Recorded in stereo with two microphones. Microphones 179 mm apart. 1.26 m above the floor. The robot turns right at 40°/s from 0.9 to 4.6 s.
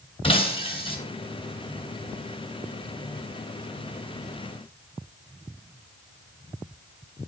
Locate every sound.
0.2 s breaking glass: 30° left (ahead or behind), 3 m